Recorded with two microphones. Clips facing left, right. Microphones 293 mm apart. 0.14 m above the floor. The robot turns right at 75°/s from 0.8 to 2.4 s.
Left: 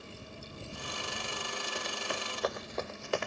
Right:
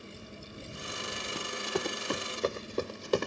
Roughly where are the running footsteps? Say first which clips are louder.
Right 7 dB; right.